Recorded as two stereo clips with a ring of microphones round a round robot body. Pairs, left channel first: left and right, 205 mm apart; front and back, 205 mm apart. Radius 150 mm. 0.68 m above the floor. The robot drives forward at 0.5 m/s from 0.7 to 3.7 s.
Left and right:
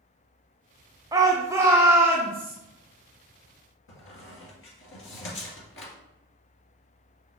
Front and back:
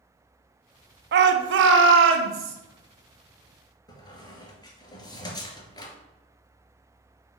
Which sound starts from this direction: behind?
A shout, at 1.1 s.